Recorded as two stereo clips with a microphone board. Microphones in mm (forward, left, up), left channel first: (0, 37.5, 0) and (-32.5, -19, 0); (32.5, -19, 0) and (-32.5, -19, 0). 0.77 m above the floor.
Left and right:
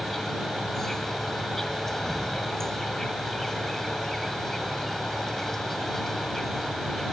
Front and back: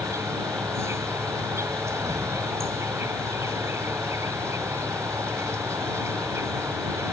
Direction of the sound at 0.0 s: 145° left.